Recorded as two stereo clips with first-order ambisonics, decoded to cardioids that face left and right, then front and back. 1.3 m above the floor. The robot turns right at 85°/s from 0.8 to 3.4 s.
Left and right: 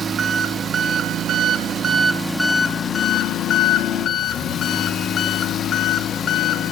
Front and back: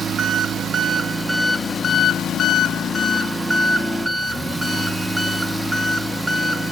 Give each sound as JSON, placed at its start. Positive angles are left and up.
{"t": 0.0, "sound": "an engine running", "azimuth_deg": -135, "distance_m": 0.7}